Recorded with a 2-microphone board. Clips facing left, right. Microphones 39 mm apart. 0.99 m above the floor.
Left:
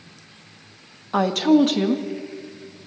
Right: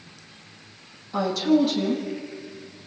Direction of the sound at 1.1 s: 60° left (ahead or behind).